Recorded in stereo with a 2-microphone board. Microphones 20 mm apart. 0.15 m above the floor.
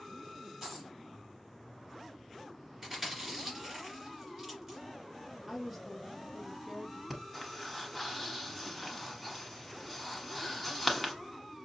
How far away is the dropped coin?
About 3 m.